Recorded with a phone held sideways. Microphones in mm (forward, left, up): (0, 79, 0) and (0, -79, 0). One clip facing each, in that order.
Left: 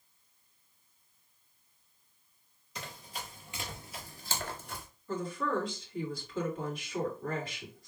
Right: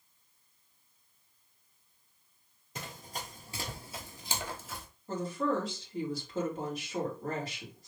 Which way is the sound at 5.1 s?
40° right (ahead or behind).